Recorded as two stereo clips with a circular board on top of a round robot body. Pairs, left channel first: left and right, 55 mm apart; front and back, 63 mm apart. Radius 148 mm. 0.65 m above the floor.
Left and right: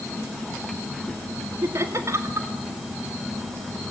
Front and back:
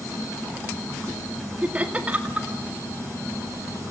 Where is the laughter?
115° right, 2 m.